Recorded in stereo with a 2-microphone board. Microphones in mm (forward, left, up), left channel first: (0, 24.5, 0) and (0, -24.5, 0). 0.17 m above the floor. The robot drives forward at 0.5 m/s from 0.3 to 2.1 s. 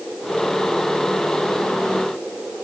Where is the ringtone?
I don't hear a ringtone.